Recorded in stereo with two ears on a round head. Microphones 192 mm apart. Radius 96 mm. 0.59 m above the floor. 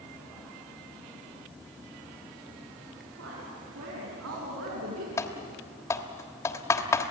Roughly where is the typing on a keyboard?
Centre.